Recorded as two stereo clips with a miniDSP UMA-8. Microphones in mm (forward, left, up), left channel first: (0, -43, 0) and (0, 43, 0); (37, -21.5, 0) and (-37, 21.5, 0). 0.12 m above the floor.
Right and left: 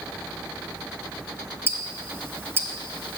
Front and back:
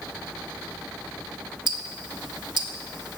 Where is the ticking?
150° left, 0.6 m.